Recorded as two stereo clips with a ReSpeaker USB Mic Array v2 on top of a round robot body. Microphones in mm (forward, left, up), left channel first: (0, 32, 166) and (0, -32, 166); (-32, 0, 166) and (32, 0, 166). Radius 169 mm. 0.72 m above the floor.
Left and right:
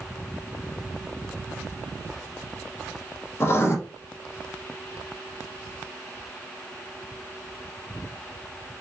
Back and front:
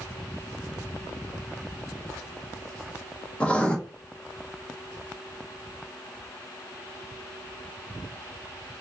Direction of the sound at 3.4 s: 115° left.